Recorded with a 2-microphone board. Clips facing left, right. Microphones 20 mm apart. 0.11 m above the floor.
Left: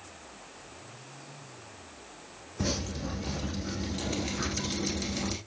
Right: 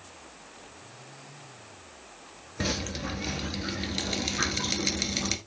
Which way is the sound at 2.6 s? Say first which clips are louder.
Right 2 dB; 45° right (ahead or behind).